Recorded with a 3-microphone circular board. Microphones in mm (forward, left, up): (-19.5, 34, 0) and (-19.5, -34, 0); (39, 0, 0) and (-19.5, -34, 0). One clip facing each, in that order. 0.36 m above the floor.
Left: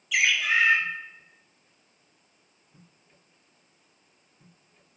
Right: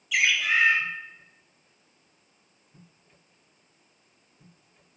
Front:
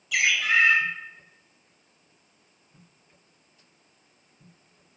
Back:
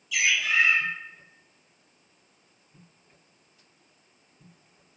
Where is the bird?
5° right, 0.6 m.